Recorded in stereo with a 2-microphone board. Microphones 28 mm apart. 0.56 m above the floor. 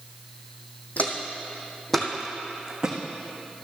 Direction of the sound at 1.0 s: 55° left (ahead or behind).